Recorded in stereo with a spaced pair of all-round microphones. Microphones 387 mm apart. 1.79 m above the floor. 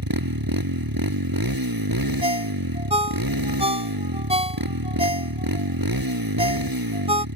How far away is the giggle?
I don't hear a giggle.